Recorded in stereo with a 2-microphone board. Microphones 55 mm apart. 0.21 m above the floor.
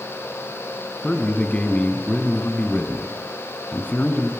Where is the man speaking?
25° left (ahead or behind), 2 m.